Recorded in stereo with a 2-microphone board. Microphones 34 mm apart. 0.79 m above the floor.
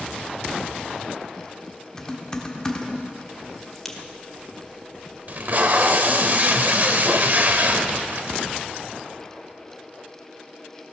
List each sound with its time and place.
2.0 s typing on a keyboard: 20° left (ahead or behind), 1.1 m
3.8 s a crack: 10° left (ahead or behind), 1.3 m
5.3 s tape being pulled: 55° right (ahead or behind), 0.7 m